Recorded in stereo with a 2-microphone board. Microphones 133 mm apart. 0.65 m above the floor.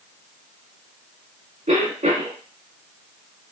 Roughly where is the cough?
Right.